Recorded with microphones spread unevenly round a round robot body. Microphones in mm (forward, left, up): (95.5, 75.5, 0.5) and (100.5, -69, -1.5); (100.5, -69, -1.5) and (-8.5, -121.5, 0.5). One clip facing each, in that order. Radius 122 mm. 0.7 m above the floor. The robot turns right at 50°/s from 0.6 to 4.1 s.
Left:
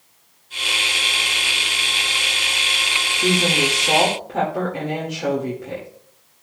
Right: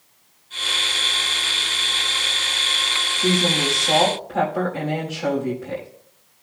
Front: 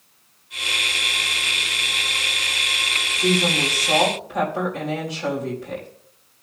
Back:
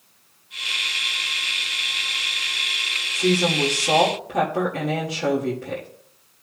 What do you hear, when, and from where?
3.1 s a woman speaking: 110° left, 1.8 m; by 5.9 s 160° left, 1.8 m